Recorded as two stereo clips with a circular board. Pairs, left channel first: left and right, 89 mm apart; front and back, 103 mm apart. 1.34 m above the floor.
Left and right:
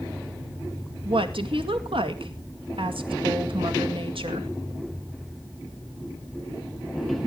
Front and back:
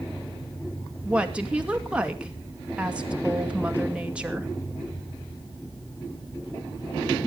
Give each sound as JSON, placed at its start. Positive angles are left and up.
{"t": 1.1, "sound": "a woman speaking", "azimuth_deg": -100, "distance_m": 2.0}